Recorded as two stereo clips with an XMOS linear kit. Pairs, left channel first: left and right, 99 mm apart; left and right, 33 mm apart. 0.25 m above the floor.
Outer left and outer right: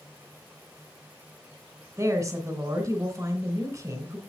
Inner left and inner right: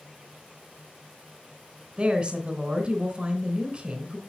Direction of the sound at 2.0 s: 25° right (ahead or behind).